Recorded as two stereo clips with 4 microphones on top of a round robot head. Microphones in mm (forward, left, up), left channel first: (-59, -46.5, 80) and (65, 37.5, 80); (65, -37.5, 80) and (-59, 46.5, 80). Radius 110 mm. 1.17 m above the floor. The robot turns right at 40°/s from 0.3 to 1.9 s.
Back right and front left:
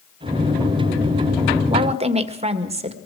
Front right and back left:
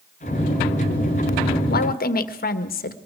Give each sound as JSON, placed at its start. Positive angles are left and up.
{"t": 1.7, "sound": "a woman speaking", "azimuth_deg": -25, "distance_m": 1.8}